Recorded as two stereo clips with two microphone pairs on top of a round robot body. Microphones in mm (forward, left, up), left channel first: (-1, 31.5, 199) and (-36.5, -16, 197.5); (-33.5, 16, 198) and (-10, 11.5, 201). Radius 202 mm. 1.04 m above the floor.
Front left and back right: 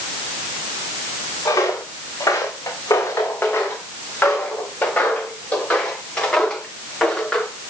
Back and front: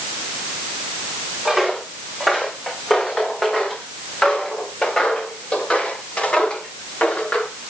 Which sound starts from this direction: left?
Footsteps, at 1.4 s.